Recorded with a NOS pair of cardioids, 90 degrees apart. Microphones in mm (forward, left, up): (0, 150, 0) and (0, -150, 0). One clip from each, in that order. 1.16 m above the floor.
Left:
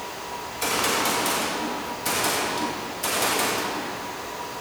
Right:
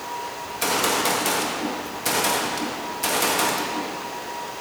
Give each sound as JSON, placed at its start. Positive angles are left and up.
{"t": 0.5, "sound": "a gunshot", "azimuth_deg": -20, "distance_m": 2.0}